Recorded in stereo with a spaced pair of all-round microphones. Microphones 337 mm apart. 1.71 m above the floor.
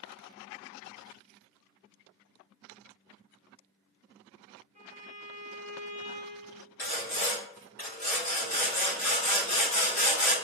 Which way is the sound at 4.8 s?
20° right (ahead or behind).